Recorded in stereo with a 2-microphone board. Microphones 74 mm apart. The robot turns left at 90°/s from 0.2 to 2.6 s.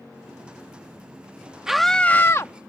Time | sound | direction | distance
1.7 | a scream | 170° right | ?